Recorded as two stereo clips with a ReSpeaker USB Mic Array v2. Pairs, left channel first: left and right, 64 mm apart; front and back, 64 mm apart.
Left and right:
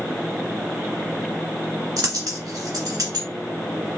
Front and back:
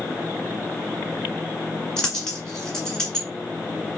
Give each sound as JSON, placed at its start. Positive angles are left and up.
{"t": 2.0, "sound": "a dropped coin", "azimuth_deg": -80, "distance_m": 1.8}